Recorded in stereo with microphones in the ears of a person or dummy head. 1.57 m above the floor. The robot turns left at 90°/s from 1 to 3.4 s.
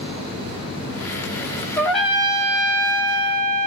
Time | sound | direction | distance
1.8 | a trumpet | 20° left | 0.7 m